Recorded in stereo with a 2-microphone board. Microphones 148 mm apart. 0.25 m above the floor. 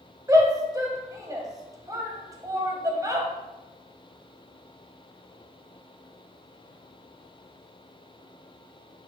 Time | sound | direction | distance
0.3 | a shout | 20° right (ahead or behind) | 1.7 m